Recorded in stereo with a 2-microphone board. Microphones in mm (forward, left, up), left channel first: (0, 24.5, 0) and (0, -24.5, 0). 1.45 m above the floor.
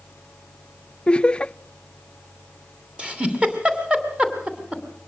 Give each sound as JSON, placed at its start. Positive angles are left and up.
{"t": 1.1, "sound": "laughter", "side_deg": 25, "distance_m": 0.6}
{"t": 3.0, "sound": "a giggle", "side_deg": -20, "distance_m": 2.5}